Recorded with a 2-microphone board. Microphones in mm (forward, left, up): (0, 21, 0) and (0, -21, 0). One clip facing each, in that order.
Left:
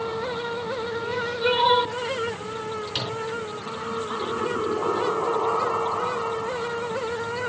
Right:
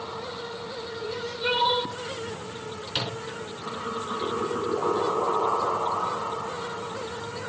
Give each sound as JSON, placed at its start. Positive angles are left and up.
{"t": 1.0, "sound": "crying", "side_deg": 10, "distance_m": 4.5}
{"t": 2.9, "sound": "a microwave", "side_deg": -15, "distance_m": 4.0}